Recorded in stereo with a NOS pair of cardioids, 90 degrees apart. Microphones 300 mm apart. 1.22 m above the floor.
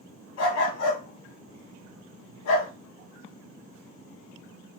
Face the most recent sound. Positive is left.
turn(degrees=60)